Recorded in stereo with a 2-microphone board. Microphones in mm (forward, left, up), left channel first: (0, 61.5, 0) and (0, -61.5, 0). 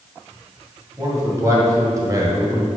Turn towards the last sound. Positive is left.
turn(degrees=-25)  # may be behind; listen again after turning